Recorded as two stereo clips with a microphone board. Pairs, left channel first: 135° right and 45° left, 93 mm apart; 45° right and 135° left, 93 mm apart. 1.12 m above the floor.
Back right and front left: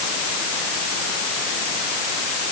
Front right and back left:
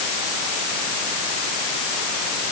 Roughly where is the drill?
No drill in this recording.